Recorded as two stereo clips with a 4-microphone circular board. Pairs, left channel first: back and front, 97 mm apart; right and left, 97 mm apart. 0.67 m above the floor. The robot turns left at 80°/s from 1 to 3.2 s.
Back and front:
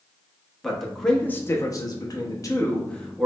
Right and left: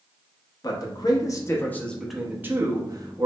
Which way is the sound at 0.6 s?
95° right.